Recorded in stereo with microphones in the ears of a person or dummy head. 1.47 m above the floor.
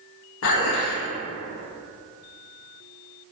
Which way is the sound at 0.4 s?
70° left (ahead or behind).